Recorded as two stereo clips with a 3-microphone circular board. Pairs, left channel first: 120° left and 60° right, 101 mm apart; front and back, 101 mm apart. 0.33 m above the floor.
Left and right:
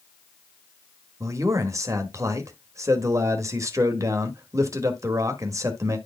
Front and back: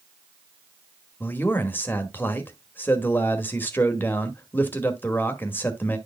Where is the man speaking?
50° right, 1.1 m.